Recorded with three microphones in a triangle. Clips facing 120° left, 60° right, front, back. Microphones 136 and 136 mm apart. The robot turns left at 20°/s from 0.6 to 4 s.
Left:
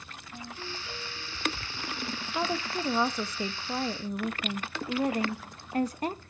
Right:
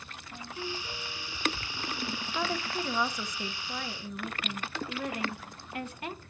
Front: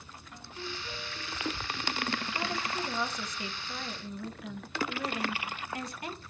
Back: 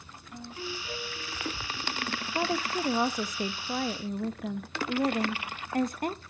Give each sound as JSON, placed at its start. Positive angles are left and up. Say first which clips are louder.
{"t": 0.3, "sound": "a ringtone", "louder": "right 3 dB, back 4 dB", "azimuth_deg": -95, "distance_m": 5.5}
{"t": 2.4, "sound": "a woman speaking", "louder": "left 2 dB, back 5 dB", "azimuth_deg": -170, "distance_m": 0.8}